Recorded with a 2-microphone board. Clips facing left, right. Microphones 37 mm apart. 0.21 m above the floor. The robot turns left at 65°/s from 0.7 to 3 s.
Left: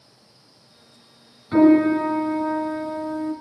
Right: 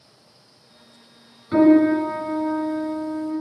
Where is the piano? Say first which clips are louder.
Even; 175° left, 2 m; by 3.3 s 80° left, 2 m.